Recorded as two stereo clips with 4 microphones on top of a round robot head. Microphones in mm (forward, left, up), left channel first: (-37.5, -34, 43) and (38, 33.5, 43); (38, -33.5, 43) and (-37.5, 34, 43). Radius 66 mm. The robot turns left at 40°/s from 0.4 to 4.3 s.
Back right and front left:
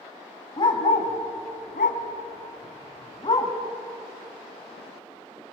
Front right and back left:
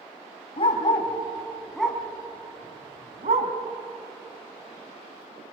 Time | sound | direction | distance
0.6 | a dog barking | 85° right | 3 m